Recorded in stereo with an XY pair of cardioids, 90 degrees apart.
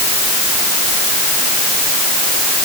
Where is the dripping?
No dripping in this recording.